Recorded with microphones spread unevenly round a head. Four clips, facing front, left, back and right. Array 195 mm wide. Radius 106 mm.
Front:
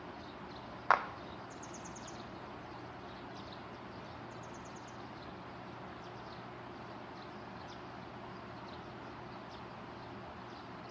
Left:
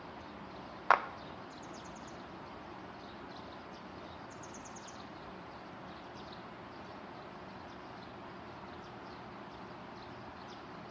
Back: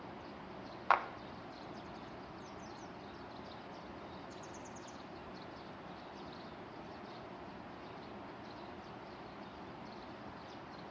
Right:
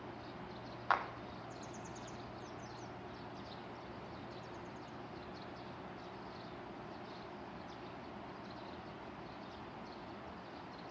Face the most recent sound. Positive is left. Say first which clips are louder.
# left 7 dB, front 1 dB
turn(degrees=65)